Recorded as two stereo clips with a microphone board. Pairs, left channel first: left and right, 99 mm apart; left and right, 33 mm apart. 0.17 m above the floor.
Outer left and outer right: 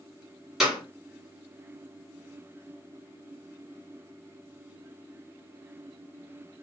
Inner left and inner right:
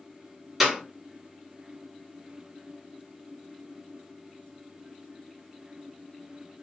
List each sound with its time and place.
0.6 s a clap: 5° right (ahead or behind), 1.6 m